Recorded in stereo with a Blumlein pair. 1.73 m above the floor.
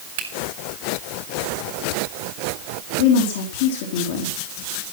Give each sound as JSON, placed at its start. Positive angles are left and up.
{"t": 0.2, "sound": "a finger snap", "azimuth_deg": -50, "distance_m": 3.5}
{"t": 3.0, "sound": "a woman speaking", "azimuth_deg": 50, "distance_m": 3.5}